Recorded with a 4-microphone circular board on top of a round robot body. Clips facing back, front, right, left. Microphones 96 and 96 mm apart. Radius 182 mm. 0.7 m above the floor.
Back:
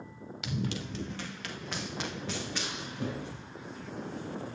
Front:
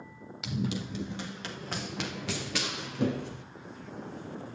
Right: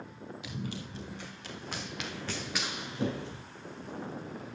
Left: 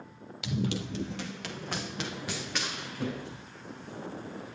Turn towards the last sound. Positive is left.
turn(degrees=-35)